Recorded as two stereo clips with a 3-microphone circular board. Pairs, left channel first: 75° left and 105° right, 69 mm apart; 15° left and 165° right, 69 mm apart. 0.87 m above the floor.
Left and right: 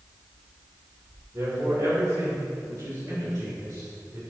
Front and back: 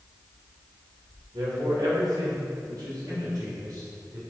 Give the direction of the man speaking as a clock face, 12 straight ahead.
5 o'clock.